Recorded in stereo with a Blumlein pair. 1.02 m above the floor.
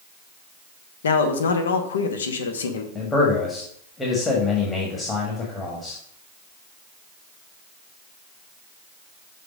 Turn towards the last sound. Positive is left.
turn(degrees=15)